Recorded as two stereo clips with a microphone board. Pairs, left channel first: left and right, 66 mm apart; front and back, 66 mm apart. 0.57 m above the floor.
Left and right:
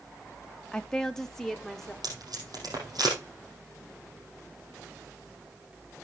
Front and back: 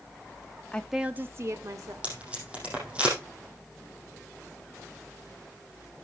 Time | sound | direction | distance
0.7 | a woman speaking | 25° left | 0.7 m
2.0 | tape being pulled | 110° right | 5.5 m